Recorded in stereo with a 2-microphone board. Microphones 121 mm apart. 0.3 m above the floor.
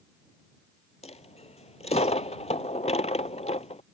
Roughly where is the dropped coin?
Left.